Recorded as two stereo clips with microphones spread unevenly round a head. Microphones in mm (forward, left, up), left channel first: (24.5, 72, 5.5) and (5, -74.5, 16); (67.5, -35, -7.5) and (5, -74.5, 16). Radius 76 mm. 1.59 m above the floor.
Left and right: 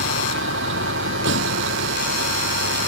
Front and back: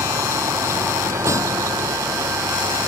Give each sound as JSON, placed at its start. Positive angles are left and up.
{"t": 0.0, "sound": "a vehicle", "azimuth_deg": -100}